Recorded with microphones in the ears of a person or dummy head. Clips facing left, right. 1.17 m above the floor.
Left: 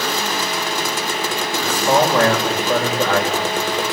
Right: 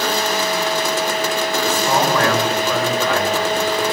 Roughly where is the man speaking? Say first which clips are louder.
Left 3 dB; left.